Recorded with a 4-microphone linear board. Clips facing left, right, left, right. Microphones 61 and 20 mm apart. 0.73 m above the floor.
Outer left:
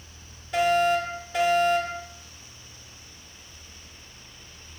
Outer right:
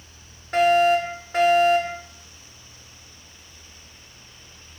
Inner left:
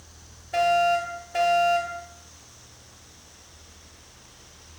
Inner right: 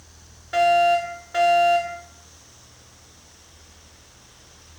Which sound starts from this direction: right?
A fire alarm, at 0.5 s.